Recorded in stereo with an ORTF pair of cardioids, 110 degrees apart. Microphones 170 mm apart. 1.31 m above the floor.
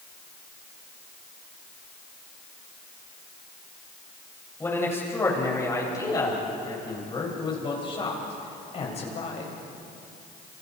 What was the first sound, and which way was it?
A man speaking, 15° left.